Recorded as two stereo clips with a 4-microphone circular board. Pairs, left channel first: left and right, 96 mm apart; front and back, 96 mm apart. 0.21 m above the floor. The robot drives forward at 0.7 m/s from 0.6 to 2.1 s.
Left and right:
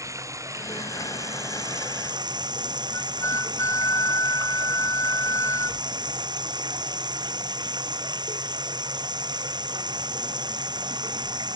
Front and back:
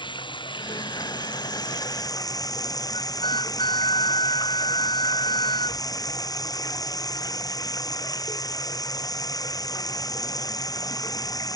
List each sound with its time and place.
0.0 s running water: 35° right; by 11.6 s 50° right
2.9 s a flute: 30° left